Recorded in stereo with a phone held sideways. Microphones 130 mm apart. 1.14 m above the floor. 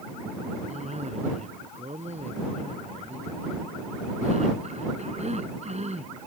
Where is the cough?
60° right (ahead or behind).